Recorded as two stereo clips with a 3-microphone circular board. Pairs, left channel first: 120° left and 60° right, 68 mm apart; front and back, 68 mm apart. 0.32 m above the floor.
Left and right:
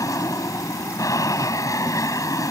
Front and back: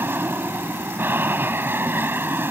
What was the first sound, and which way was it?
An aircraft, 130° left.